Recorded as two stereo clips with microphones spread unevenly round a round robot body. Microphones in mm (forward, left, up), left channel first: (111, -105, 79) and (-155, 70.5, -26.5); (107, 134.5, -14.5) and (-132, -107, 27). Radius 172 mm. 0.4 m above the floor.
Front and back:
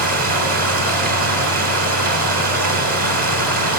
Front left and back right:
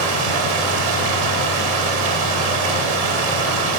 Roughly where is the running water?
Behind.